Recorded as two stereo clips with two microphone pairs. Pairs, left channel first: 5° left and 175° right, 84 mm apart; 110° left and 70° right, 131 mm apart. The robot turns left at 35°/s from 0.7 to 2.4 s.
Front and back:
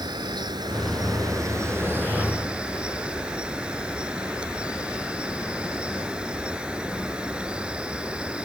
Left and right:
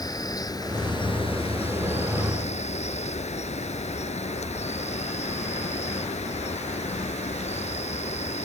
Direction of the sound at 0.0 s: 165° left.